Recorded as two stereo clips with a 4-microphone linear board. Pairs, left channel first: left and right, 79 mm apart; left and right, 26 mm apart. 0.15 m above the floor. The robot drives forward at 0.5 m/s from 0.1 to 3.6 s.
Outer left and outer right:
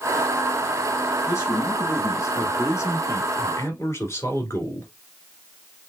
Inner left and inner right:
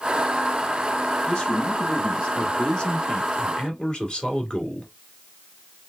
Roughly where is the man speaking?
Left.